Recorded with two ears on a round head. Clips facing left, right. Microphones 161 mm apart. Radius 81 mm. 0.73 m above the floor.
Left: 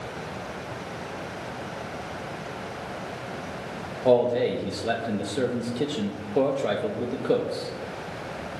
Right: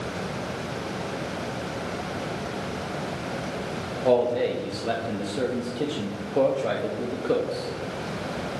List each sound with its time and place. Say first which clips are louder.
4.0 s a man speaking: left 1 dB; 5° left (ahead or behind), 0.6 m